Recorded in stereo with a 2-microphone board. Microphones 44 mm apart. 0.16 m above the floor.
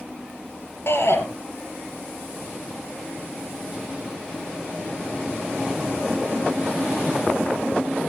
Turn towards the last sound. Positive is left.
turn(degrees=65)  # may be behind; listen again after turning